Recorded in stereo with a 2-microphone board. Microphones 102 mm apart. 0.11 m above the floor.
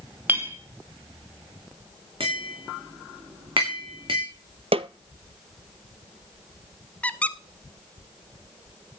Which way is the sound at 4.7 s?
70° right (ahead or behind).